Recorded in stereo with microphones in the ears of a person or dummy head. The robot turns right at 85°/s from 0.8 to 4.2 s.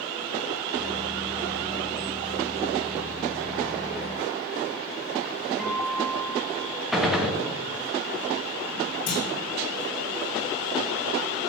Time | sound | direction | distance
5.6 | a guitar | centre (ahead or behind) | 1.7 m
6.9 | a gunshot | centre (ahead or behind) | 1.5 m
9.1 | a clunk | 65° left (ahead or behind) | 5.5 m